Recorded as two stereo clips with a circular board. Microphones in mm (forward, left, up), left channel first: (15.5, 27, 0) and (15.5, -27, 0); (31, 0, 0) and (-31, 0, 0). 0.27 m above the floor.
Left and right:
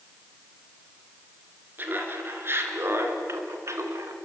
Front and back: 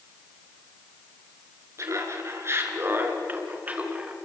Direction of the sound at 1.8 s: 140° right.